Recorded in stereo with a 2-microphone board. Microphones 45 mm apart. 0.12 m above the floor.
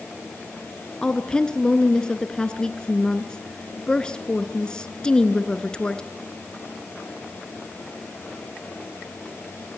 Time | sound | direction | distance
1.0 | a woman speaking | 20° left (ahead or behind) | 1.4 m